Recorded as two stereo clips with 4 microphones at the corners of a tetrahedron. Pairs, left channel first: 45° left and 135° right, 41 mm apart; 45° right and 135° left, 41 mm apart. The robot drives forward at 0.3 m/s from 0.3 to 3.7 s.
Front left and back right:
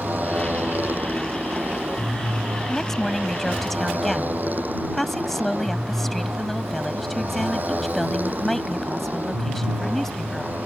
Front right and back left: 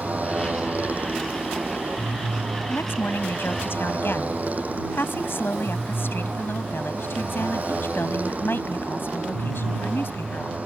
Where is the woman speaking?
40° right.